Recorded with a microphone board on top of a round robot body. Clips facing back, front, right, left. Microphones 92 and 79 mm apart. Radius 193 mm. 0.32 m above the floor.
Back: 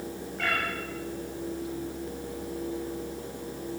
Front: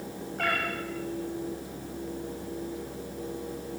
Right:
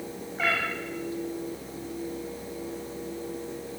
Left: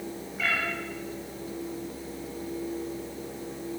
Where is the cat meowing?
40° right, 8.5 m.